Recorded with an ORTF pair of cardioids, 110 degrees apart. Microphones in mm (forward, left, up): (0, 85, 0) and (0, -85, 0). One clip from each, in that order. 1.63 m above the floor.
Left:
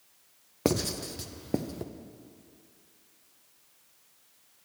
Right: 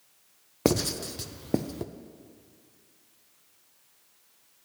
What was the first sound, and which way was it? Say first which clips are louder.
Writing: right 3 dB; 15° right.